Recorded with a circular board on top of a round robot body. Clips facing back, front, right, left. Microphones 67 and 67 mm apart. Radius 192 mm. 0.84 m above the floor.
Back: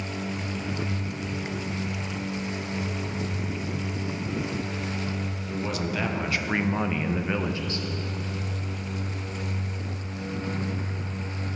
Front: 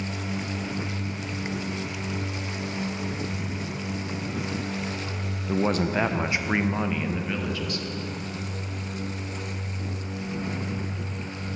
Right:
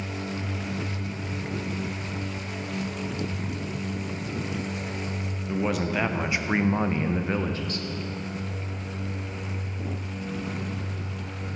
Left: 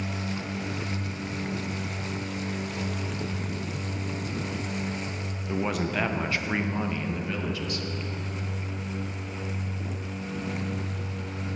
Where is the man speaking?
5° left, 0.9 m; by 7.9 s 135° right, 1.0 m.